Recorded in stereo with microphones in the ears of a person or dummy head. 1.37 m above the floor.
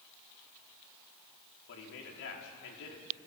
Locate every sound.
1.7 s a man speaking: 70° left (ahead or behind), 4 m